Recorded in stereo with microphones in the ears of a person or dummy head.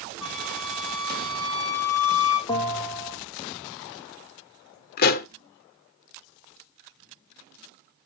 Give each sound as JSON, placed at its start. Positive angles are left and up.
{"t": 0.2, "sound": "a flute", "side_deg": 60, "distance_m": 3.5}
{"t": 2.5, "sound": "a bell", "side_deg": 20, "distance_m": 2.0}
{"t": 5.0, "sound": "a pop", "side_deg": 60, "distance_m": 0.7}